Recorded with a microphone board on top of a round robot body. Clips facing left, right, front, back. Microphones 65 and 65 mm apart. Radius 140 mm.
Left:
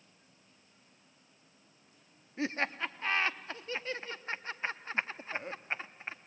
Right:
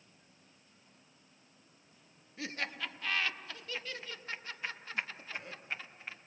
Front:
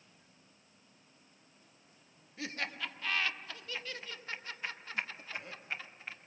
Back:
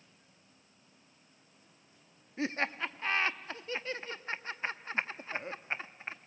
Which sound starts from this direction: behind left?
Laughter, at 2.4 s.